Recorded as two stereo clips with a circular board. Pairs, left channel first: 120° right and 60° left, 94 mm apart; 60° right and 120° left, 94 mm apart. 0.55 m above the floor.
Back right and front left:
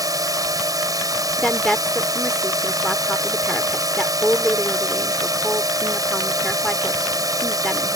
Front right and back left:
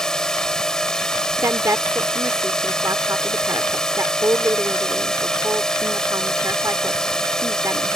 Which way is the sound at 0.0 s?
20° left.